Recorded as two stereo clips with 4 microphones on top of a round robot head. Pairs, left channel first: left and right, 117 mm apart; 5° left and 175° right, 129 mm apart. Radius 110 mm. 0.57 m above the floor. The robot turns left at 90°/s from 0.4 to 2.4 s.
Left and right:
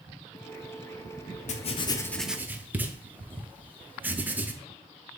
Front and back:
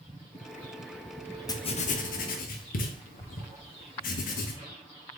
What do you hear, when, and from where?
1.5 s writing: 70° left, 0.6 m; by 4.5 s 15° right, 0.6 m